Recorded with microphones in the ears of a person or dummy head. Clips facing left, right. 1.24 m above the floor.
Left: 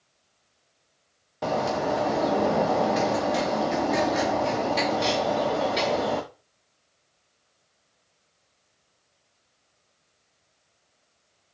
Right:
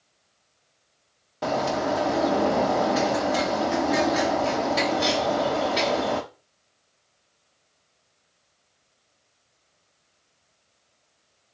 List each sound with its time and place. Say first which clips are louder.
1.4 s a bird: right 1 dB; 5° right (ahead or behind), 0.6 m